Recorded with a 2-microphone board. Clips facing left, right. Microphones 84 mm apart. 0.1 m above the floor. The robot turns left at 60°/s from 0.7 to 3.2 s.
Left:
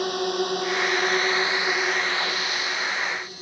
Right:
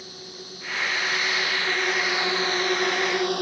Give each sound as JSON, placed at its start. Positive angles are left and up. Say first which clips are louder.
{"t": 0.0, "sound": "a drone", "louder": "left 18 dB", "side_deg": 70}